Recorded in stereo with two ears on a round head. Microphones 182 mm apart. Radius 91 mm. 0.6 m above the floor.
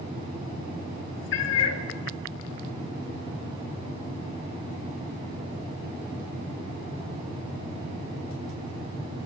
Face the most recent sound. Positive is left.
turn(degrees=65)  # may be behind; listen again after turning